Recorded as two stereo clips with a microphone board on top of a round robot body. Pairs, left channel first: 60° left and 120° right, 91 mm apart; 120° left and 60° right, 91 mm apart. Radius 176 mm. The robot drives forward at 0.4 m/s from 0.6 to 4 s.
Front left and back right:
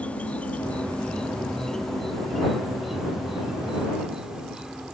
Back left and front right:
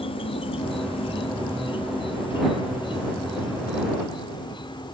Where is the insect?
135° left; by 4.9 s 155° left.